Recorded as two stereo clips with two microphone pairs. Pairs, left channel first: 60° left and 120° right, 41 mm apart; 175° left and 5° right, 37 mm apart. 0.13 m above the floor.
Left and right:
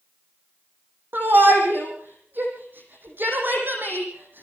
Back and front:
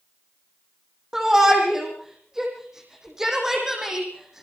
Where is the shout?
85° right, 5.5 m.